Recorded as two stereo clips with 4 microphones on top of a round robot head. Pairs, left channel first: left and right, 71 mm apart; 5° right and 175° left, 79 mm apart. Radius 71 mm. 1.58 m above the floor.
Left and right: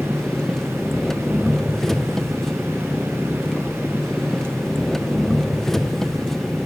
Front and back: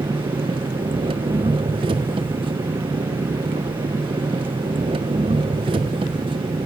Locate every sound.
0.0 s an engine running: 175° left, 0.8 m